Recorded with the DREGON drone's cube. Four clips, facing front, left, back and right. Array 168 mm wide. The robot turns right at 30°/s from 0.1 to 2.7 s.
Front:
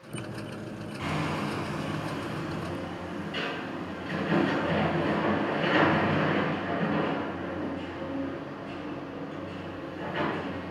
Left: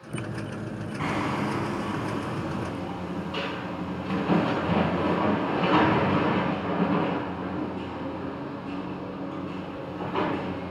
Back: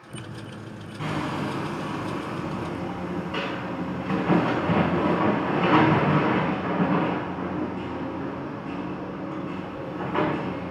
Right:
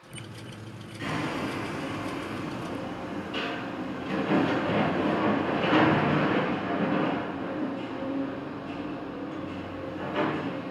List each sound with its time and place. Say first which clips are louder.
1.0 s hammering: left 3 dB, back 3 dB; 100° left, 5 m; by 10.7 s 150° left, 5 m